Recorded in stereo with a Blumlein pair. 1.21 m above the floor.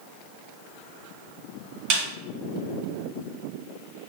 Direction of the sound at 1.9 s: 40° right.